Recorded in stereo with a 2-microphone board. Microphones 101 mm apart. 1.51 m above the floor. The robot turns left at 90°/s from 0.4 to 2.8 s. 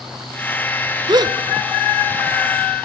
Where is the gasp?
45° right (ahead or behind), 0.7 m; by 1.4 s 40° right (ahead or behind), 0.7 m.